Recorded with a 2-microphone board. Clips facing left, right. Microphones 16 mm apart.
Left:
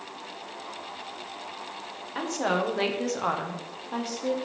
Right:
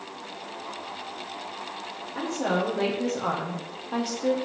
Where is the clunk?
I don't hear a clunk.